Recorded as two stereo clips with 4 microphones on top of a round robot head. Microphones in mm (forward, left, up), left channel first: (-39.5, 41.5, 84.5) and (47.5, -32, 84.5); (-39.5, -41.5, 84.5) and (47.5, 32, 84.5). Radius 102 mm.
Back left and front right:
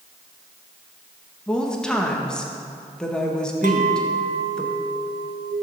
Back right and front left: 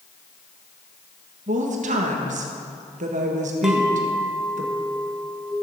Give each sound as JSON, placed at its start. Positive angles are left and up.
{"t": 1.5, "sound": "a woman speaking", "azimuth_deg": 55, "distance_m": 1.7}
{"t": 3.6, "sound": "a clink", "azimuth_deg": -45, "distance_m": 0.7}